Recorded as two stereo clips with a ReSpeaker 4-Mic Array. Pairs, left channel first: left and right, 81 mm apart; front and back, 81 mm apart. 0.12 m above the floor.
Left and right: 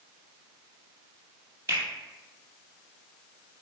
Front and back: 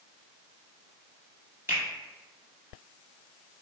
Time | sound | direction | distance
1.7 | a finger snap | 135° right | 1.5 m